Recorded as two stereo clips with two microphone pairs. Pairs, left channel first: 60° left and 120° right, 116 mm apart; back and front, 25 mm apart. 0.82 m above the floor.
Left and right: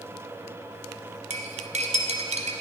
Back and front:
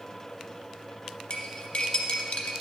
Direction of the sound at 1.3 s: 135° right.